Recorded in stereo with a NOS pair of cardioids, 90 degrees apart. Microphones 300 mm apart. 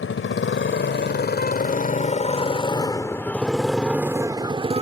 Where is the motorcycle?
45° left; by 4.8 s 20° right.